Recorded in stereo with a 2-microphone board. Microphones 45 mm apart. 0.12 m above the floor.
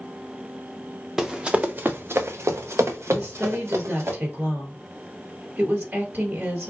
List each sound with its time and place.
1.2 s running footsteps: 10° right (ahead or behind), 0.6 m; by 4.1 s 75° right (ahead or behind), 1.5 m
3.1 s a woman speaking: 45° right (ahead or behind), 1.9 m